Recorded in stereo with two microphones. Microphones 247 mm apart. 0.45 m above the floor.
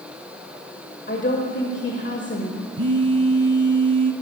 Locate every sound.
1.1 s a woman speaking: 50° left (ahead or behind), 1.3 m
2.8 s a phone buzzing: 80° right, 1.1 m